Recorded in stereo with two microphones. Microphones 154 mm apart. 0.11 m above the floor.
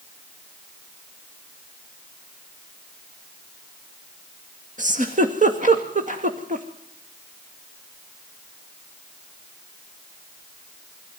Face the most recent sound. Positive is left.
turn(degrees=-55)  # may be behind; listen again after turning